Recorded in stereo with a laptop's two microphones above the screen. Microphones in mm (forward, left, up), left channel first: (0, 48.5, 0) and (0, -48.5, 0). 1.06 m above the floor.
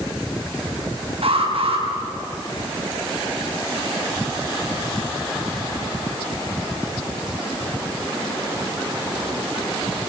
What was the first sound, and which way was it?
An alarm, 70° right (ahead or behind).